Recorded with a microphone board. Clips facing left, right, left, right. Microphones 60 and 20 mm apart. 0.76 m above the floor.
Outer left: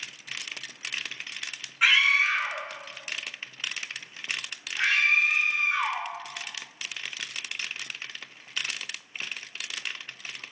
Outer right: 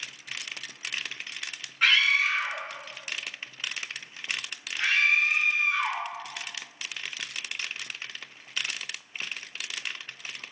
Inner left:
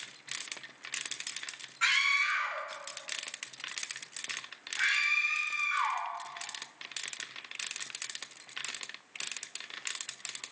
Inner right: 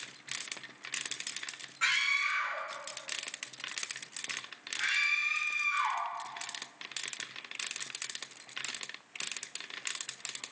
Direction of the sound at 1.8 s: 5° left (ahead or behind).